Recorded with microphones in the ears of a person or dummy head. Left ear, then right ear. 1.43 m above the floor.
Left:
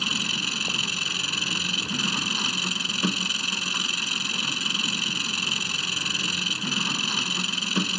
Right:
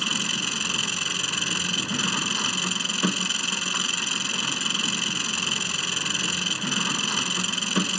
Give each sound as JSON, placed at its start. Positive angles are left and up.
{"t": 0.0, "sound": "an engine running", "side_deg": -20}